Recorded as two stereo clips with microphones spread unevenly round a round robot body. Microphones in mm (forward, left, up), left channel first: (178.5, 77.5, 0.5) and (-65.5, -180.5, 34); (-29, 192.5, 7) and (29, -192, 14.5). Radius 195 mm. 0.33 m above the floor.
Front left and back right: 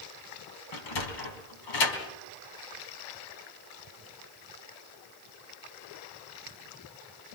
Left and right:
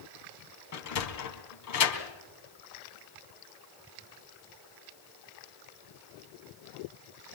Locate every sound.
0.7 s a sliding door: 55° left, 3.5 m